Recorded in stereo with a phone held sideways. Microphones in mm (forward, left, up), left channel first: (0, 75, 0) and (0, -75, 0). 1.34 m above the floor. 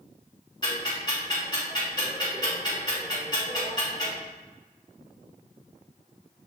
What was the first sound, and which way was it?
Ticking, 30° left (ahead or behind).